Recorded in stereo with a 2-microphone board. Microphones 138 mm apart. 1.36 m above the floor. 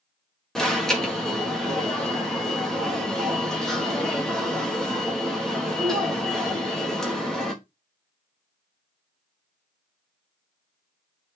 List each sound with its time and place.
0.6 s an alarm: 5° left (ahead or behind), 4 m